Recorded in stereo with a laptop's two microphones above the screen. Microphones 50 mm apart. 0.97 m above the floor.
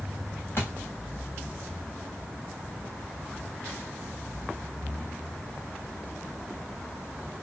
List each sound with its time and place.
0.6 s a thud: 45° left (ahead or behind), 4.5 m